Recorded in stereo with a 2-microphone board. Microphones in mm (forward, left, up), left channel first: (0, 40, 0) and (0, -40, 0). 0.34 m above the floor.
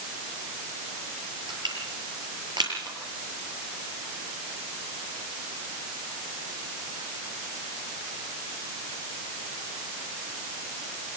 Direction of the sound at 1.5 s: 65° right (ahead or behind).